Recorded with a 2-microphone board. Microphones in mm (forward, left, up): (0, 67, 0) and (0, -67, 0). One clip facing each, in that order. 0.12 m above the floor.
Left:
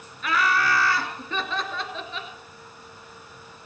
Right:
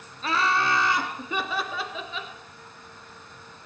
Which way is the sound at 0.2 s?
30° right (ahead or behind).